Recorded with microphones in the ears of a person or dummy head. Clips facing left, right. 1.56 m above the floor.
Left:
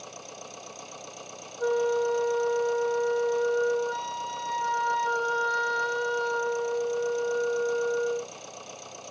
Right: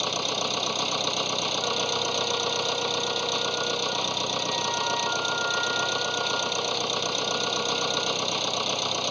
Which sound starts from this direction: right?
A machine running, at 0.0 s.